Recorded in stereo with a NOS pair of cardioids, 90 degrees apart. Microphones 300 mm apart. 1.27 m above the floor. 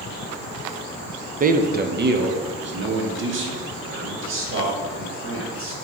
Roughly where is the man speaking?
Ahead right.